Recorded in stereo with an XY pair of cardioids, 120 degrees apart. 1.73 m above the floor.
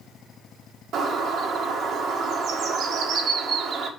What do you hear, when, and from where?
0.9 s a bird: 65° right, 1.7 m